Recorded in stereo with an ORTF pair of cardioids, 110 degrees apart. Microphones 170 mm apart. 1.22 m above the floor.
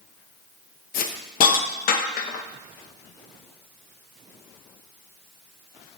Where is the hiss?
55° left, 0.8 m.